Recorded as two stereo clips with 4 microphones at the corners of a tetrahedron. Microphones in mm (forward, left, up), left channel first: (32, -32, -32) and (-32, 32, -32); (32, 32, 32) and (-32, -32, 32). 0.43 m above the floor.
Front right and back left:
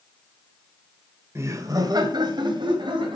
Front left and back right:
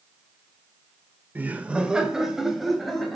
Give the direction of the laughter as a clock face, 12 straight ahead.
6 o'clock.